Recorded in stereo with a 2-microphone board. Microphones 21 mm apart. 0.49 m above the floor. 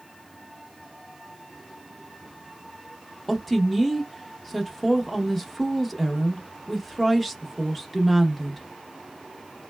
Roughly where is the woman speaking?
Centre.